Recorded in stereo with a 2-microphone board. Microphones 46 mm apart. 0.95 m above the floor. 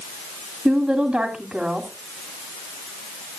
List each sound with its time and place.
0.7 s a woman speaking: 25° right (ahead or behind), 2.5 m